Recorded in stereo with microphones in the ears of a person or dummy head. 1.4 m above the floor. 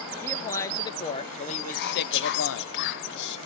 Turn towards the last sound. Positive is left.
turn(degrees=55)  # may be behind; listen again after turning